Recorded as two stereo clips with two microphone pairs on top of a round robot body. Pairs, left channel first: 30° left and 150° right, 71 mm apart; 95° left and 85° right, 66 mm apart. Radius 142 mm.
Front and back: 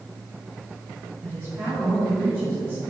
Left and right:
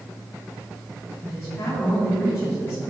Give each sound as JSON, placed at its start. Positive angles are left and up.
{"t": 1.2, "sound": "a woman speaking", "azimuth_deg": 145, "distance_m": 3.5}